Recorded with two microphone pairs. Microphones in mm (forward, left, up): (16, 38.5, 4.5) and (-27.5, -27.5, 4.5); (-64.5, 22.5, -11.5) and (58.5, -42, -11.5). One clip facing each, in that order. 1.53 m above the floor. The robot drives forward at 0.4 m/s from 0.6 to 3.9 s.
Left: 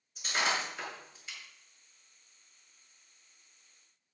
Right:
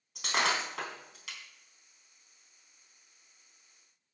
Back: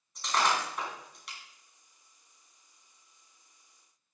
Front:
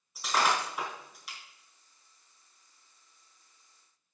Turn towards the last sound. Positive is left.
turn(degrees=-125)